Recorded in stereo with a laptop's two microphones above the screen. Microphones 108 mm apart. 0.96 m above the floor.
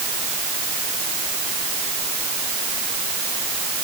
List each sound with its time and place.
Only background noise.